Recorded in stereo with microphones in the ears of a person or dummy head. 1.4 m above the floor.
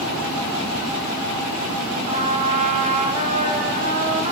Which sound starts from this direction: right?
A trumpet, at 2.1 s.